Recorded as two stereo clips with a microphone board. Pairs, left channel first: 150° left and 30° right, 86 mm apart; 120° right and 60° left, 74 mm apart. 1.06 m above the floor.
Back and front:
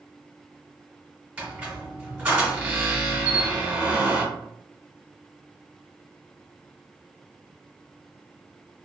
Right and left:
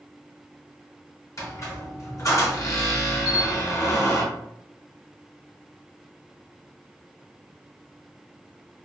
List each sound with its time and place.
1.4 s a squeak: 100° right, 1.1 m
3.2 s a camera shutter: 160° right, 1.1 m